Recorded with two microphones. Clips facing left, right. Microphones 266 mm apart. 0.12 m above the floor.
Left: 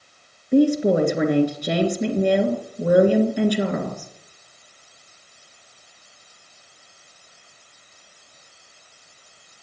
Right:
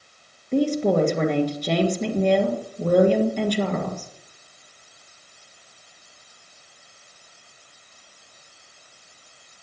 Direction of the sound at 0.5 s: 10° left (ahead or behind).